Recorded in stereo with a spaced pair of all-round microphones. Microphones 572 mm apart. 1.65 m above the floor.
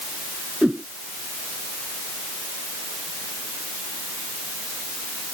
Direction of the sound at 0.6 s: Centre (ahead or behind).